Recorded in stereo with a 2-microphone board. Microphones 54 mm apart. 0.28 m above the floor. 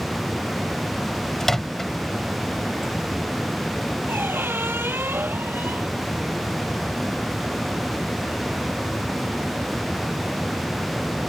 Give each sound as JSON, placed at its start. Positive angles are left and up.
{"t": 1.4, "sound": "a microwave", "side_deg": 5}
{"t": 4.1, "sound": "a squeak", "side_deg": -45}